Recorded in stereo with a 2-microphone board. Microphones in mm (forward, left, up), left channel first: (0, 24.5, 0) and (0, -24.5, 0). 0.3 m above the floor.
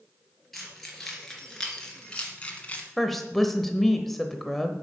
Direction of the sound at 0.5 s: 5° left (ahead or behind).